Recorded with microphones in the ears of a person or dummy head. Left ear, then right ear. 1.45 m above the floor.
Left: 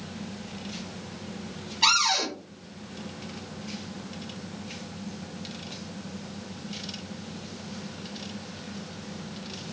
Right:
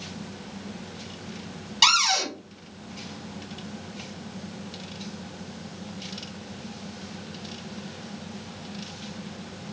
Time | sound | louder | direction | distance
1.8 | a cupboard door | right 2 dB | 80° right | 1.7 m